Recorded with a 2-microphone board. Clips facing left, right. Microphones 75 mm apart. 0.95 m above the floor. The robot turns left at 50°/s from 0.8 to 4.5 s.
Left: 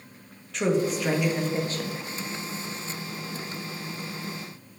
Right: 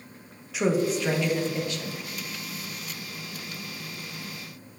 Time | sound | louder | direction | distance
0.5 | a woman speaking | even | 175° right | 1.0 m